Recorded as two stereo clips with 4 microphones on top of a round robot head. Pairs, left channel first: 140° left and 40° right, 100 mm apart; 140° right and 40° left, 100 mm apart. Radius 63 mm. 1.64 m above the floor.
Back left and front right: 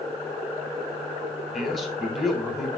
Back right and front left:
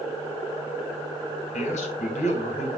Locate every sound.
1.5 s a man speaking: 130° right, 2.5 m